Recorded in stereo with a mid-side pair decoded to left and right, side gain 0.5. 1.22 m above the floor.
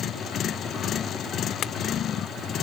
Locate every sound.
1.6 s a clink: 60° left